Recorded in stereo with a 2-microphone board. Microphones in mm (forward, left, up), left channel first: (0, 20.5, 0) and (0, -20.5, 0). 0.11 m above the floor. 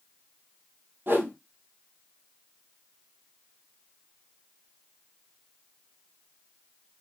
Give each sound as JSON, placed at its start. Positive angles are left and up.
{"t": 1.1, "sound": "a whoosh", "side_deg": -55, "distance_m": 1.6}